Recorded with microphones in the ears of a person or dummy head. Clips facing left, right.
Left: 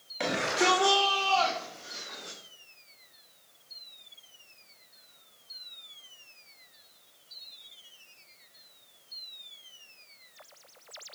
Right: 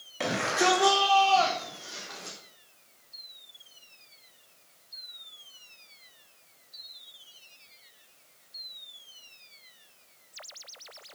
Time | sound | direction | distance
0.2 | a shout | centre (ahead or behind) | 3.5 m